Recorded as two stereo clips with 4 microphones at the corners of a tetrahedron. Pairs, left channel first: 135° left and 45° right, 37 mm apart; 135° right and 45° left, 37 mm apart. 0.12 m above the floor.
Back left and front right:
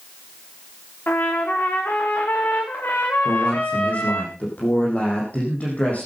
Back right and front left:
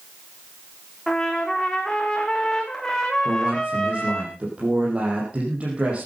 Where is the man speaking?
95° left, 5.5 m.